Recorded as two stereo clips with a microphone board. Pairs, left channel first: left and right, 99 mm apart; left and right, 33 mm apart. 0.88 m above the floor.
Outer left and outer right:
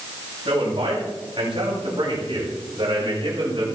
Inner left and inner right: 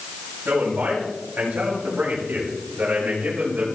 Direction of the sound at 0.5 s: 70° right (ahead or behind).